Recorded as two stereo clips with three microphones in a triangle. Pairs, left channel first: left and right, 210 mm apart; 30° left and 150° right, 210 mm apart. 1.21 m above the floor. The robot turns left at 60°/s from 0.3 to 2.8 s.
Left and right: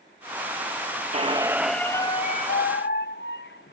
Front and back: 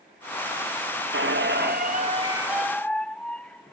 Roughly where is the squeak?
Behind right.